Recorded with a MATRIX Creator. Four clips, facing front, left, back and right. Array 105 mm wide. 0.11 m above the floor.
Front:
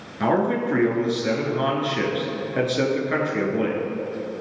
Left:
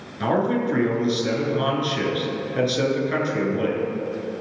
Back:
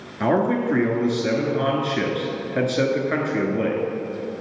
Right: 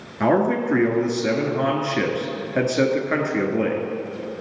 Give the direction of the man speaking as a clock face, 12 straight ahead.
3 o'clock.